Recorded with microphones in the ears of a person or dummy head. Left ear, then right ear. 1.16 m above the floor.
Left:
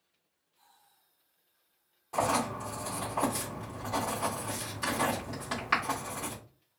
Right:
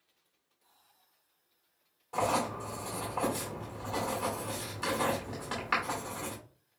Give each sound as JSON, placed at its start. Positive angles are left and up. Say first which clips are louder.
{"t": 2.1, "sound": "writing", "louder": "left 1 dB", "side_deg": 5, "distance_m": 2.0}